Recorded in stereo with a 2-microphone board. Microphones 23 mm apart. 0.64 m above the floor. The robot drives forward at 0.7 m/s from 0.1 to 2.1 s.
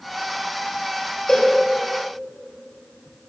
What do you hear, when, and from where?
1.3 s a cowbell: 40° left (ahead or behind), 3 m; by 1.6 s 35° left (ahead or behind), 3 m